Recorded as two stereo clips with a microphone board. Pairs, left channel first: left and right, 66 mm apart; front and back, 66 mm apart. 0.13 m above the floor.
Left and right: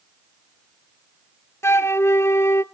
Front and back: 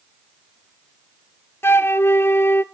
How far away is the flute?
About 0.6 m.